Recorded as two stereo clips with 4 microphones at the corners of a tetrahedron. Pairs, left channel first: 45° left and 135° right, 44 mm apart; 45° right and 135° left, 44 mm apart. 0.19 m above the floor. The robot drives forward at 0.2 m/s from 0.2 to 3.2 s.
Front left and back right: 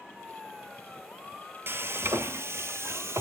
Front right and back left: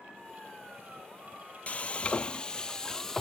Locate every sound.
1.7 s frying: 105° right, 0.6 m; by 3.2 s 125° right, 0.8 m